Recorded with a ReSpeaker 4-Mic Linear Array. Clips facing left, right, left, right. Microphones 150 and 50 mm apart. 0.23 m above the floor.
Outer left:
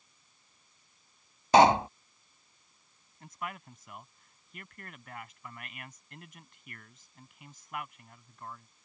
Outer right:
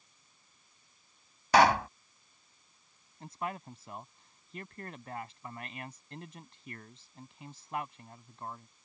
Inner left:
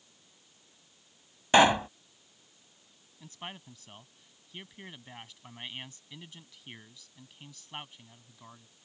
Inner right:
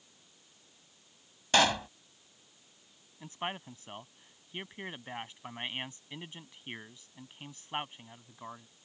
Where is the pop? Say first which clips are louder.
Outer left 3 dB, inner left 5 dB; 25° left (ahead or behind).